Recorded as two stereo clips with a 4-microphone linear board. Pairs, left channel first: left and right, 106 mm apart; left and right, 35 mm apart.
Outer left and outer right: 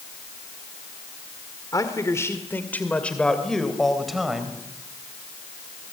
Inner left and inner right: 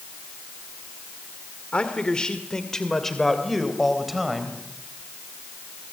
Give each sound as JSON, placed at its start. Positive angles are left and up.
{"t": 1.7, "sound": "a man speaking", "side_deg": 35, "distance_m": 2.0}